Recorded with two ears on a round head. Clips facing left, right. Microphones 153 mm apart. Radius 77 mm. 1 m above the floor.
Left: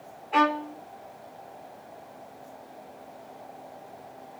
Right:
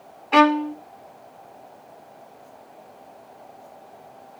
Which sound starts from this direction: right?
A violin, at 0.3 s.